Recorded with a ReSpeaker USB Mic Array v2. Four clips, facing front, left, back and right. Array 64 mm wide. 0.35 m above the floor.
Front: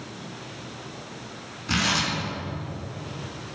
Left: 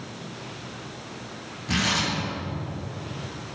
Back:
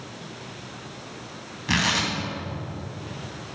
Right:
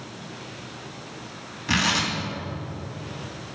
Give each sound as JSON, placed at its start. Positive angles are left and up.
{"t": 1.7, "sound": "tearing paper", "azimuth_deg": -145, "distance_m": 3.0}